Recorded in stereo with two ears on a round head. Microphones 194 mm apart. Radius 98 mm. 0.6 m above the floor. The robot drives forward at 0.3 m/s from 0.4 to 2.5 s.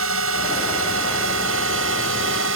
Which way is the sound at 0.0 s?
70° right (ahead or behind).